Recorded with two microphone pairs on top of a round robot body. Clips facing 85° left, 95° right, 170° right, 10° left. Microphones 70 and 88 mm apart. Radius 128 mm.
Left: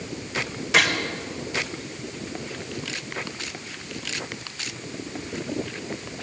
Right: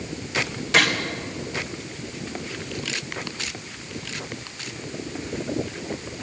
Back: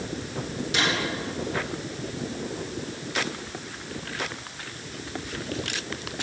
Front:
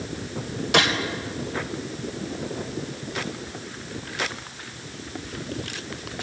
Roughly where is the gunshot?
Ahead.